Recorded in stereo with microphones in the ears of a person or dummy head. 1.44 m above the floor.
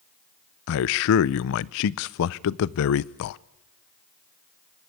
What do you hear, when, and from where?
0.7 s a man speaking: 55° left (ahead or behind), 0.6 m